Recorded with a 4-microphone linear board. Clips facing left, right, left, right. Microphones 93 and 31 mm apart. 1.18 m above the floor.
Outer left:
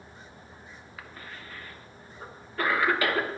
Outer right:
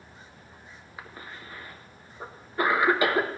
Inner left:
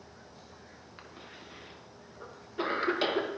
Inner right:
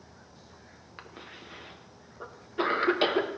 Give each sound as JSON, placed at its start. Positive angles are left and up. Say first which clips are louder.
{"t": 1.0, "sound": "a cough", "louder": "outer right 2 dB, inner right 4 dB", "side_deg": -20, "distance_m": 0.9}